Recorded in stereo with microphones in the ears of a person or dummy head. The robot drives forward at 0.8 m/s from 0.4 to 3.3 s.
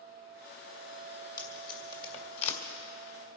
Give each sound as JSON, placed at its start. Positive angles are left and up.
{"t": 1.4, "sound": "tape being pulled", "side_deg": 30, "distance_m": 2.5}